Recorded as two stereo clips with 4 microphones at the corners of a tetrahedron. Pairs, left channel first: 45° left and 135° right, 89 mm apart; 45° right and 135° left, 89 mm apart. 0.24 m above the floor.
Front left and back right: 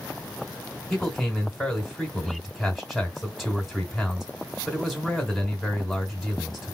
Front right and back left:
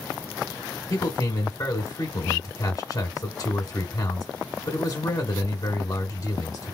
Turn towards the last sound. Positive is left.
turn(degrees=-40)